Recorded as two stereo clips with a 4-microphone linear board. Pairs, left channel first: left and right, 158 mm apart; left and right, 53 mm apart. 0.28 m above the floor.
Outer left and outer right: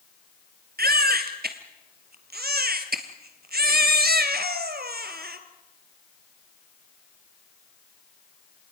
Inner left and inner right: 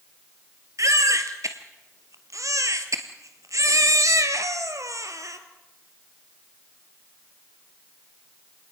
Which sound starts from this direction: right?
A baby crying, at 0.8 s.